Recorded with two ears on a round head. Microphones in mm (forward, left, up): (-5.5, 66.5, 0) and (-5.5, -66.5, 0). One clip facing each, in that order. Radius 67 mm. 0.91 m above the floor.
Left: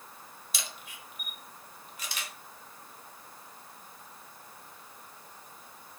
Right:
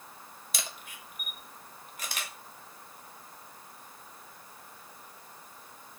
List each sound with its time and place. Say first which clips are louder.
0.5 s a camera shutter: right 2 dB; 40° right (ahead or behind), 0.6 m